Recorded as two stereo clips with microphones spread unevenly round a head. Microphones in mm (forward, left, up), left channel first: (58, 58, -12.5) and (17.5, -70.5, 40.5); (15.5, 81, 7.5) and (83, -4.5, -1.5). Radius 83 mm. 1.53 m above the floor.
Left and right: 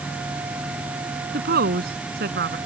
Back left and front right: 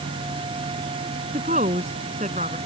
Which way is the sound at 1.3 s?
105° right.